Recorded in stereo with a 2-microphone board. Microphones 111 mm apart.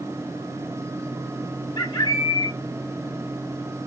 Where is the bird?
45° left (ahead or behind), 1.9 m.